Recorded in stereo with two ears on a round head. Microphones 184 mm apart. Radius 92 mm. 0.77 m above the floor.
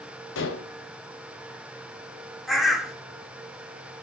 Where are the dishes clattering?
65° left (ahead or behind), 2.5 m.